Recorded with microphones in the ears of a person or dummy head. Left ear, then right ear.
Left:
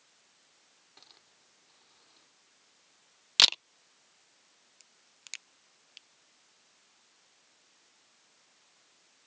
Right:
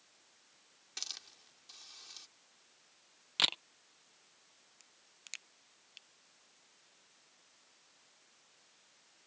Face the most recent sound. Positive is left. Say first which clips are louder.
# left 3 dB
turn(degrees=5)  # may be behind; listen again after turning